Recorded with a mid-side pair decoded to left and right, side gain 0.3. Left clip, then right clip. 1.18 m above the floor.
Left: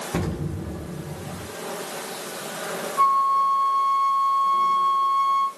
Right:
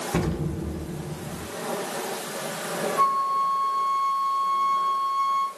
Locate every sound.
0.1 s an explosion: 15° right, 0.6 m
3.0 s a flute: 15° left, 1.5 m